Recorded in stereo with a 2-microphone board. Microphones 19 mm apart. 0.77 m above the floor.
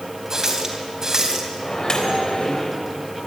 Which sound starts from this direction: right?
A running tap, at 0.3 s.